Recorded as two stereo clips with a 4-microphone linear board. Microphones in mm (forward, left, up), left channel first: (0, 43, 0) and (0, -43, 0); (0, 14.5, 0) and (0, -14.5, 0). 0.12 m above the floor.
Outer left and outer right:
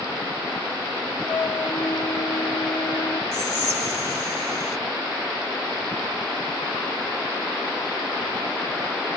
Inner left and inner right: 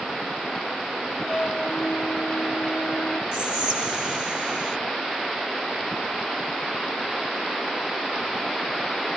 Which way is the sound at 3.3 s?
25° right (ahead or behind).